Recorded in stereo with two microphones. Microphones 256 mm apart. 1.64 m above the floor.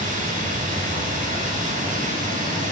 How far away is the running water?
About 9 m.